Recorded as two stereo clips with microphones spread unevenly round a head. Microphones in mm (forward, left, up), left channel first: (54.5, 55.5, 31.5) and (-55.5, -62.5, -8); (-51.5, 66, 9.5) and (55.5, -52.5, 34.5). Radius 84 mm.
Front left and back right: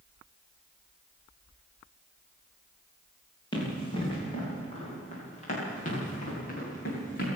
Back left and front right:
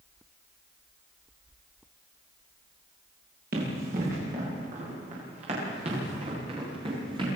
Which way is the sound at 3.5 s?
15° right.